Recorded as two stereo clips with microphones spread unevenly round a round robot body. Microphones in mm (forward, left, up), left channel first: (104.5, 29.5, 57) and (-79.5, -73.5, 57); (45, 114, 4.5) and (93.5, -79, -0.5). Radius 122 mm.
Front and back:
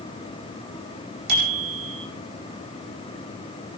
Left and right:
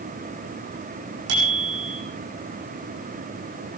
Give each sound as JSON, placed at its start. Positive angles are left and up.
{"t": 1.3, "sound": "a bicycle bell", "azimuth_deg": -110, "distance_m": 10.0}